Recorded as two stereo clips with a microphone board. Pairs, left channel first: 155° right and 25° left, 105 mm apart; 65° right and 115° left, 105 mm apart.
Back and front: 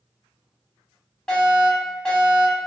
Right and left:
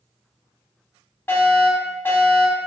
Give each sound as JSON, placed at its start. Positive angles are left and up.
{"t": 1.3, "sound": "a fire alarm", "azimuth_deg": -85, "distance_m": 1.8}